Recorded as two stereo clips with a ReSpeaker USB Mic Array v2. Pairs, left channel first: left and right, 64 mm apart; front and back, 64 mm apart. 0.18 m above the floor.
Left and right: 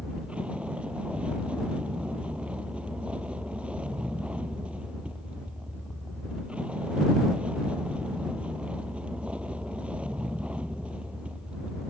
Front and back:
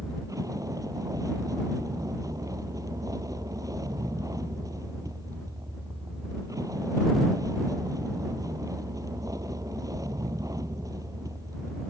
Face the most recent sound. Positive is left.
turn(degrees=-160)